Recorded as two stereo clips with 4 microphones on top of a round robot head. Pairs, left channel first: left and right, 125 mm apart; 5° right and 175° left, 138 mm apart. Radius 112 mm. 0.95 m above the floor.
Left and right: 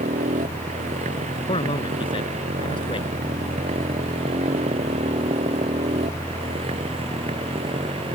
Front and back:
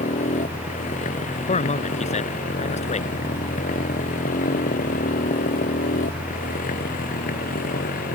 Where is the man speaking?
30° left.